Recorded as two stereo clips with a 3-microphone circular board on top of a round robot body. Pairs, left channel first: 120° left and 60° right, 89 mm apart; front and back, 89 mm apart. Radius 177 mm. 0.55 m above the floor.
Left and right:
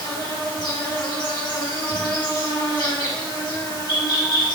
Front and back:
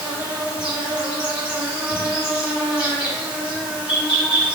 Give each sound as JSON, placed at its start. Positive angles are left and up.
{"t": 0.0, "sound": "an insect", "azimuth_deg": 105, "distance_m": 1.8}